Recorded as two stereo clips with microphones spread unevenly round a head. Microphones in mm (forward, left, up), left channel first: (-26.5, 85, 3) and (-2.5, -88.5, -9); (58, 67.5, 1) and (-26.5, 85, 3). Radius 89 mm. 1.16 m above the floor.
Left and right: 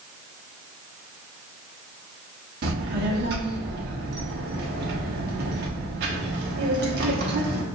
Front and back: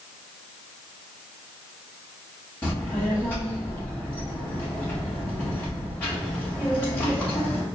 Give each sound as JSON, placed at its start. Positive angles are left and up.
{"t": 2.6, "sound": "a child speaking", "azimuth_deg": -85, "distance_m": 0.7}